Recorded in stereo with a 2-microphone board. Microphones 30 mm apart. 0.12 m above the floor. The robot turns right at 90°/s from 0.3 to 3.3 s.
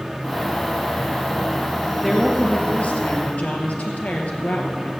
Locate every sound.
1.9 s a woman speaking: 15° right, 2.5 m; by 4.9 s 105° left, 2.5 m